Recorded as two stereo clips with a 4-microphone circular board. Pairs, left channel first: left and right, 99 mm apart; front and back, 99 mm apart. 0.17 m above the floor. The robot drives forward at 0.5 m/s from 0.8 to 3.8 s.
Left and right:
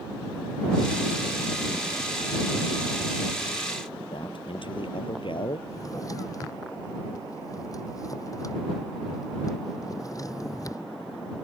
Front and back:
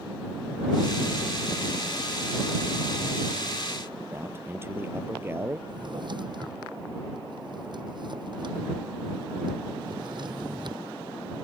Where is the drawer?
145° left.